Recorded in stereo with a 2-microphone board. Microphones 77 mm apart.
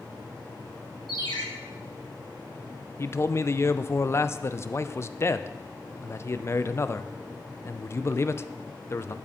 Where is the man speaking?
35° left (ahead or behind), 0.5 m.